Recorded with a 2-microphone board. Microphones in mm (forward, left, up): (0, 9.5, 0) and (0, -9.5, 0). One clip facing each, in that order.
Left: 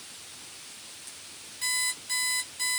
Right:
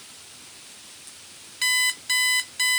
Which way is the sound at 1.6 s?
55° right (ahead or behind).